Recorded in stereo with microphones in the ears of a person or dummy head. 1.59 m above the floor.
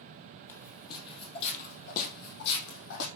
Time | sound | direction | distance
0.5 | footsteps | 15° left (ahead or behind) | 3 m